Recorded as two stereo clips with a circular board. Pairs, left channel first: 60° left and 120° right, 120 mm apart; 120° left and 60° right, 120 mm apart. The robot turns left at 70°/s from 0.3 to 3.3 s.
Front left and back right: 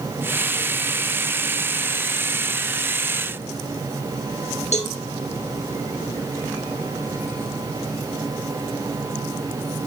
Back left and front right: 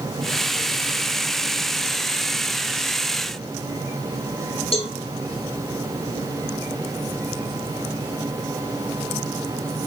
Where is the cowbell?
85° left, 3.5 m.